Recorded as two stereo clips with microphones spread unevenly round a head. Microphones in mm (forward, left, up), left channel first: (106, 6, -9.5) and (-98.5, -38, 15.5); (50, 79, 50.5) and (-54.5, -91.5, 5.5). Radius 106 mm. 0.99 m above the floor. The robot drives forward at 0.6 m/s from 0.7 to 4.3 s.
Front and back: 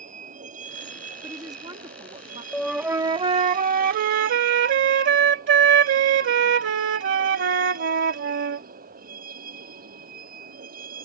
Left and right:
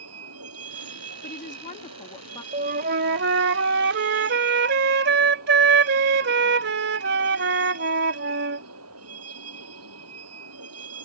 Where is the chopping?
I don't hear chopping.